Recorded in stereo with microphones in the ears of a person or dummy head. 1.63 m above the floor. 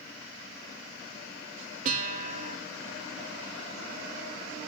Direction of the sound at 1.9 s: 45° right (ahead or behind).